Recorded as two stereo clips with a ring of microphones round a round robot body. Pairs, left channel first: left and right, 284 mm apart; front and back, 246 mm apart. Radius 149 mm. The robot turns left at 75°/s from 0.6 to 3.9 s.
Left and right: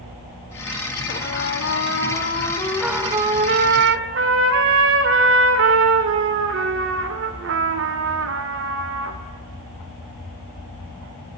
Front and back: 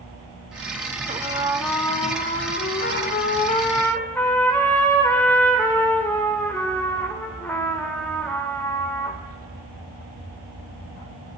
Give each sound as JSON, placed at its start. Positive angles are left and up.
{"t": 1.1, "sound": "a trumpet", "azimuth_deg": 130, "distance_m": 1.2}